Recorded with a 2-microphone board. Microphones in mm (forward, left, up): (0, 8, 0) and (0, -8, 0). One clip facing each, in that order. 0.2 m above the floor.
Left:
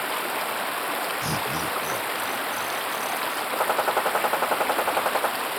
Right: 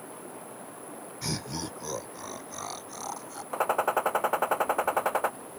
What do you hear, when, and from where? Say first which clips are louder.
0.0 s running water: left 16 dB; 65° left (ahead or behind)
1.2 s laughter: left 8 dB; 10° right (ahead or behind)
3.5 s a gunshot: left 2 dB; 5° left (ahead or behind)